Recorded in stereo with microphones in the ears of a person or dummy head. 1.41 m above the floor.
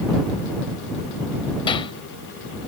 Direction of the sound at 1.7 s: 25° left (ahead or behind).